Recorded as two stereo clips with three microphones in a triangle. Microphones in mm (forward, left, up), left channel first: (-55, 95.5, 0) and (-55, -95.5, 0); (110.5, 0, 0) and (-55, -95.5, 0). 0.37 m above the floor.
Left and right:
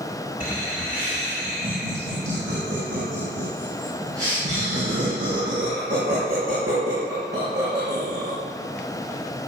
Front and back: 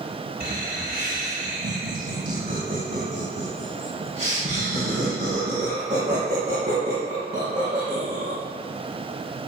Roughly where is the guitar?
I don't hear a guitar.